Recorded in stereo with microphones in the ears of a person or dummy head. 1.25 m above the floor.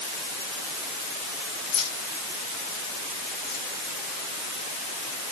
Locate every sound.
1.7 s keys jangling: 80° left, 8 m; by 3.6 s 75° left (ahead or behind), 10.5 m